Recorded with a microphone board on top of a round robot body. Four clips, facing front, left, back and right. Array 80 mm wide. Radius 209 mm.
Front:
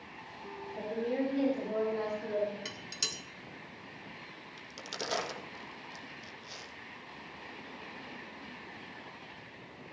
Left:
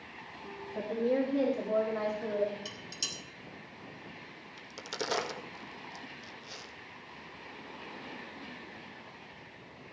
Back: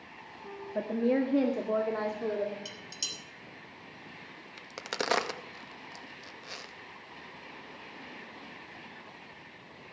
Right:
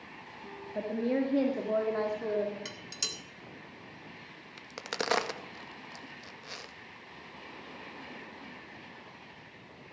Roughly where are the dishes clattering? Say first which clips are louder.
Right 1 dB, front 2 dB; ahead right.